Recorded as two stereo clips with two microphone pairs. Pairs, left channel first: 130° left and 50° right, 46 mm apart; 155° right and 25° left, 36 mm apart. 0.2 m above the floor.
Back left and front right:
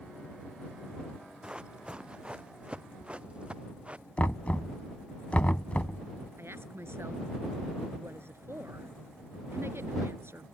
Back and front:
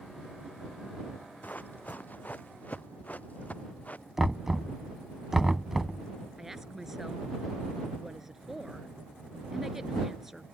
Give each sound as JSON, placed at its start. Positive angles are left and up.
{"t": 1.4, "sound": "running footsteps", "azimuth_deg": -115}
{"t": 4.2, "sound": "knocking", "azimuth_deg": 100}
{"t": 6.4, "sound": "a woman speaking", "azimuth_deg": -55}